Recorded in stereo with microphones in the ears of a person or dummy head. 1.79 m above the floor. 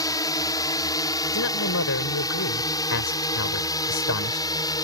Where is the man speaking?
60° left (ahead or behind).